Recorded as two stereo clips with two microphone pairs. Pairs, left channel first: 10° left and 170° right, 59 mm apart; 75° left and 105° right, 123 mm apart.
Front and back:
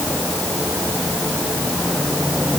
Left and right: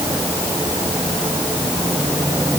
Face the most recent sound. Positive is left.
No sound to turn to.